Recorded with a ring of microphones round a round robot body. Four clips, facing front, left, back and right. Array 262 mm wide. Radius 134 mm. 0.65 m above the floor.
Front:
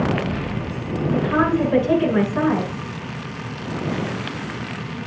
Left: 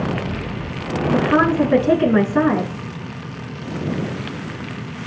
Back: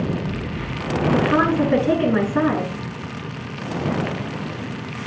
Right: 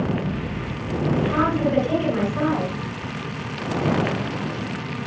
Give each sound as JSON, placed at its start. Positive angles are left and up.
{"t": 1.1, "sound": "a woman speaking", "azimuth_deg": 115, "distance_m": 9.5}